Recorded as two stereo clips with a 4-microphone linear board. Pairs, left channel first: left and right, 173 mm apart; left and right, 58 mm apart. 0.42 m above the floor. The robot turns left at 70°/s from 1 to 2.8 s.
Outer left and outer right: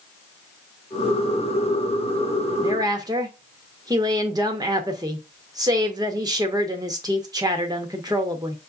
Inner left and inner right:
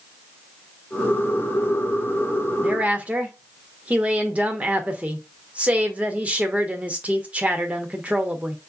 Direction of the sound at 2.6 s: 25° right (ahead or behind).